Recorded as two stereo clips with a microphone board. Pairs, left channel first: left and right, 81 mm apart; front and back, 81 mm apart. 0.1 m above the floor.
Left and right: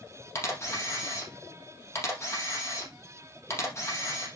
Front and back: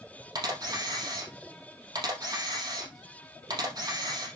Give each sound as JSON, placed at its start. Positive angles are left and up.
{"t": 0.3, "sound": "a camera shutter", "azimuth_deg": 145, "distance_m": 4.0}